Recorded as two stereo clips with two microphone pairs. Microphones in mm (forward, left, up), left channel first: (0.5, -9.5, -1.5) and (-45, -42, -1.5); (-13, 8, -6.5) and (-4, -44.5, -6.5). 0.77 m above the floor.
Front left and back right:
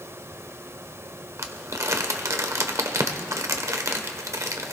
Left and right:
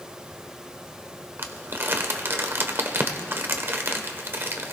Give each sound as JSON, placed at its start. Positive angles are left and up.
{"t": 1.4, "sound": "crumpling", "azimuth_deg": -125, "distance_m": 1.1}